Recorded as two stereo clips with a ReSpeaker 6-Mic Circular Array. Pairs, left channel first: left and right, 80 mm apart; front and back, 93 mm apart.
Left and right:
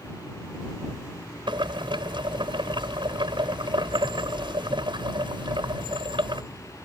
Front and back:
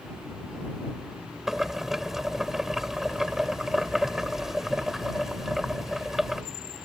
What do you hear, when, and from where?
1.5 s boiling: 95° right